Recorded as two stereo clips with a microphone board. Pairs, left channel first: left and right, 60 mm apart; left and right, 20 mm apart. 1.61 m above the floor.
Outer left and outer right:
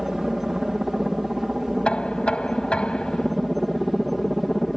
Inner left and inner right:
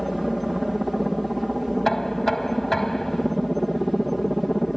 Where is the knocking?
15° left (ahead or behind).